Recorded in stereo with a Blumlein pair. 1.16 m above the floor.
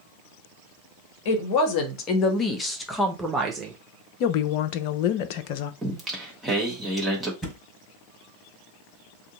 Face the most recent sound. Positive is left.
turn(degrees=10)